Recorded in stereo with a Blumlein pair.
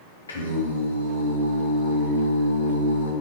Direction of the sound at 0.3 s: 70° left.